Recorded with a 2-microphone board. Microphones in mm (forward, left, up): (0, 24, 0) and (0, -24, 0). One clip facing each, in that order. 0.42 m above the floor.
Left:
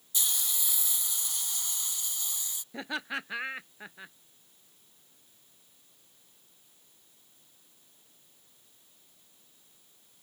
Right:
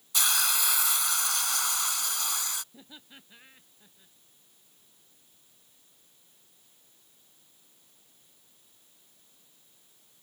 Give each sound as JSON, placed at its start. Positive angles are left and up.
{"t": 0.1, "sound": "a hiss", "side_deg": -80}
{"t": 2.7, "sound": "laughter", "side_deg": 70}